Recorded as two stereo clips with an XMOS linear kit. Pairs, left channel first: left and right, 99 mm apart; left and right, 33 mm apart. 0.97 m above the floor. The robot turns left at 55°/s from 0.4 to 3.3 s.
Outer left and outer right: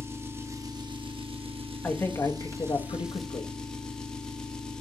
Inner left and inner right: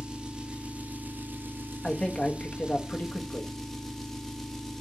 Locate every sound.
0.0 s an engine running: 25° right, 1.1 m; by 4.8 s 175° left, 1.1 m
1.8 s a man speaking: 170° left, 1.4 m; by 3.5 s 90° left, 1.4 m